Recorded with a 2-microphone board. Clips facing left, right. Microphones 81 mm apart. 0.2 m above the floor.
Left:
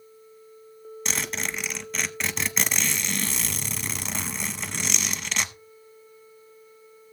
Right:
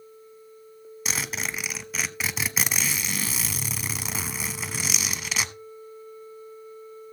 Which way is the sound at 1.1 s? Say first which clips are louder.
Even; 5° right (ahead or behind).